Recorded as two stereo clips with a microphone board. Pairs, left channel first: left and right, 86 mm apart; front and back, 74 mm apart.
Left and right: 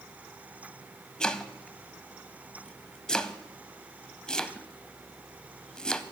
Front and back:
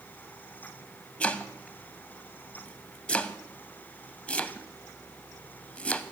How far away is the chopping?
About 0.6 m.